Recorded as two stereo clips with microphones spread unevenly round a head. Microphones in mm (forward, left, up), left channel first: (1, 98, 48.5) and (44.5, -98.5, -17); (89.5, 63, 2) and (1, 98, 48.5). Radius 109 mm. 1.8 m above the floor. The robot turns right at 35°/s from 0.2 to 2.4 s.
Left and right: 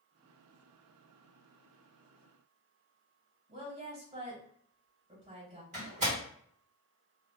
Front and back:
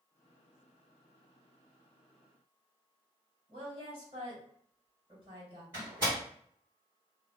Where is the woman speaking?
150° right, 1.7 m.